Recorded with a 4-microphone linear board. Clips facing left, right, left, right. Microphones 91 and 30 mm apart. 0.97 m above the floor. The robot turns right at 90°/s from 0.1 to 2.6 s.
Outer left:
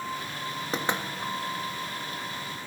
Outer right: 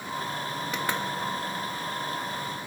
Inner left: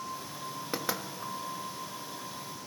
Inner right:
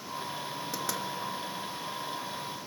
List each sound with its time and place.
0.7 s knocking: 35° left (ahead or behind), 1.4 m; by 1.0 s 10° left (ahead or behind), 1.4 m